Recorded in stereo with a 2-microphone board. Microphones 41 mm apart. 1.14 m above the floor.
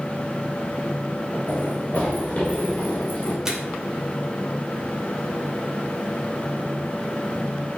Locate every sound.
1.5 s running footsteps: 35° left (ahead or behind), 5 m; by 3.4 s 25° left (ahead or behind), 5.5 m
3.5 s a microwave: 15° right (ahead or behind), 3 m